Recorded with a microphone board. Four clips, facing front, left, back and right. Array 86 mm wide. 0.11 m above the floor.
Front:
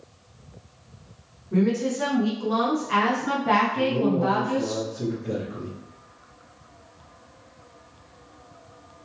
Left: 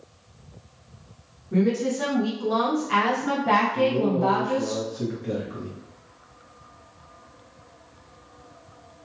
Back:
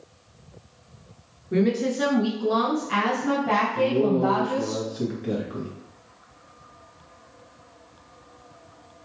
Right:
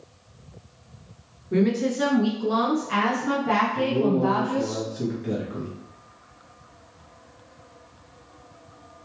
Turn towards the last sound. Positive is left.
turn(degrees=-170)